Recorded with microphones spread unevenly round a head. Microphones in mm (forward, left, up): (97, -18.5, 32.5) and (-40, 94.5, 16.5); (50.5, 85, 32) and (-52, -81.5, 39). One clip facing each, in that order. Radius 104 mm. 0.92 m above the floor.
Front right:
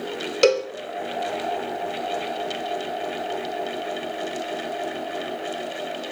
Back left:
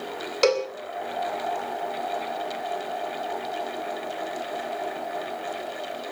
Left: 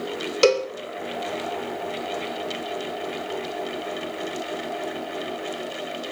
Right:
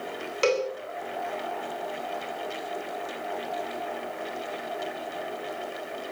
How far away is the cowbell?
About 2.5 m.